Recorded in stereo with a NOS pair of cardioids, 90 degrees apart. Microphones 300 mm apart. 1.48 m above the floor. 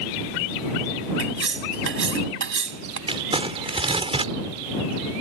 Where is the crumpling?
15° right.